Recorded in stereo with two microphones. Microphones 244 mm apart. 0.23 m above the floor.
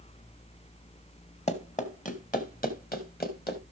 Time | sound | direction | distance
1.5 | running footsteps | 25° left (ahead or behind) | 1.9 m